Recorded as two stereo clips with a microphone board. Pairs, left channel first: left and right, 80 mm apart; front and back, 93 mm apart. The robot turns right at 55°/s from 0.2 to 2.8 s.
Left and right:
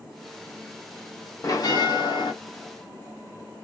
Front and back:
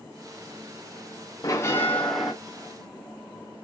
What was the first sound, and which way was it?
A bell, 45° left.